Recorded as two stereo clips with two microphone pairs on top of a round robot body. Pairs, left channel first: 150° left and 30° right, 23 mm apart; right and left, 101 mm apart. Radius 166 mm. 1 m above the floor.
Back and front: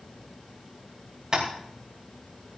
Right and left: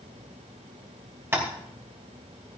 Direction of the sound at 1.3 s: 25° left.